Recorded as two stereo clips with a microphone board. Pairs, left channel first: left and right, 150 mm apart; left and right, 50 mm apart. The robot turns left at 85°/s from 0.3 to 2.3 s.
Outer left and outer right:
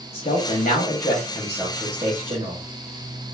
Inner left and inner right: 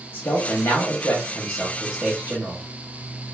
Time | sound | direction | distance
0.1 | a man speaking | 130° left | 1.2 m